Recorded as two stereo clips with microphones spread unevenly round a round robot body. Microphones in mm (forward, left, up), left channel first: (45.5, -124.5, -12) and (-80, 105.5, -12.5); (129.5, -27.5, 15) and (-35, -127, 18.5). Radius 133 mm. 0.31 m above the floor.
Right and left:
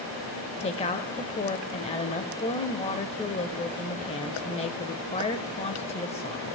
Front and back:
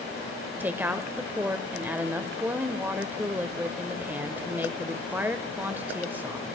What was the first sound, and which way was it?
A woman speaking, 80° right.